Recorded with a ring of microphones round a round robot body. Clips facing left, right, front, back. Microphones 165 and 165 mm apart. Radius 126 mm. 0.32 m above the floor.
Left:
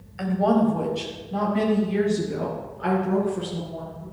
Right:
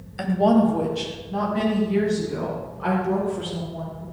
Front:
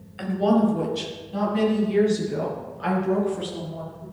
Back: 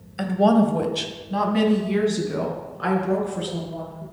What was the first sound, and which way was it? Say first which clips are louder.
A woman speaking: right 2 dB, back 2 dB; 140° right.